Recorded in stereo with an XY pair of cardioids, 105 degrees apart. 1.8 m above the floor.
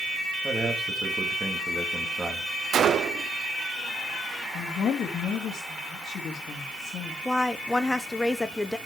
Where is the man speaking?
25° right, 4 m.